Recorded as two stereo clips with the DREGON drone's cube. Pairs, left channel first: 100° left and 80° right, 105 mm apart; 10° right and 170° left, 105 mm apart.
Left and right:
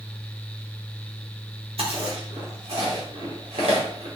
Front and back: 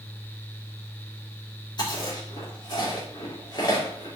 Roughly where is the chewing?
Ahead right.